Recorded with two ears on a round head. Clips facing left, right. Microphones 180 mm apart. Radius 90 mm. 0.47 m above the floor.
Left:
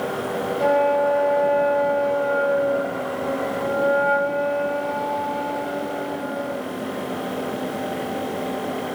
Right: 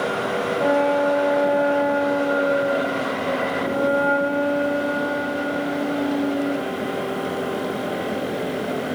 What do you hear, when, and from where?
0.6 s a flute: 10° right (ahead or behind), 2 m